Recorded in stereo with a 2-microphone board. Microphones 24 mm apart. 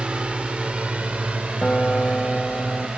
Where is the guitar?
50° left (ahead or behind).